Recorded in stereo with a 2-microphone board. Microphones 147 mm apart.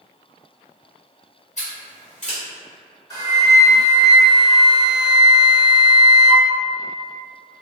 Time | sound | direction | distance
1.6 | scissors | 55° left (ahead or behind) | 1.3 m
3.1 | a flute | 20° left (ahead or behind) | 1.0 m